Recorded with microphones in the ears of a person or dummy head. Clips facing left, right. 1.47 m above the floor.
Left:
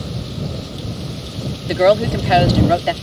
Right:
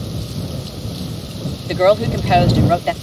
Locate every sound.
1.7 s a woman speaking: 5° left (ahead or behind)